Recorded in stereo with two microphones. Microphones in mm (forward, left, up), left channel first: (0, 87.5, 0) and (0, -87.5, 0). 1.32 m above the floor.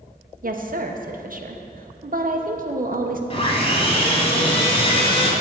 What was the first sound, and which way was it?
A woman speaking, 55° right (ahead or behind).